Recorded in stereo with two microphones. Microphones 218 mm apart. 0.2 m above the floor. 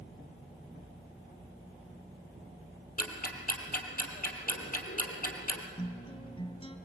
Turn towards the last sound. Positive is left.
turn(degrees=25)  # may be behind; listen again after turning